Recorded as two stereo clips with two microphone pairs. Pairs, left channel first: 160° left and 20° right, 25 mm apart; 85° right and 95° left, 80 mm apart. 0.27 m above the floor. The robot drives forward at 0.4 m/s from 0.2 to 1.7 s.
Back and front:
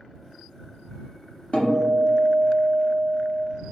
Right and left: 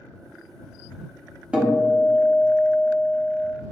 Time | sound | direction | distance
1.5 | a guitar | 160° left | 0.7 m